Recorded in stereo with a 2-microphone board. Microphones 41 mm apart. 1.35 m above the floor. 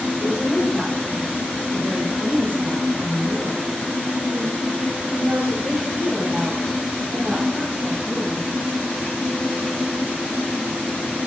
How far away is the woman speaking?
About 5.5 m.